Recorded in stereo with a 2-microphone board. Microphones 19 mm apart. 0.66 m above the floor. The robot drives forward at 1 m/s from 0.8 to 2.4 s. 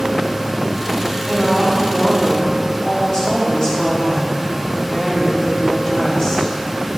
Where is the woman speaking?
40° left (ahead or behind), 4 m; by 6.5 s 30° left (ahead or behind), 5 m.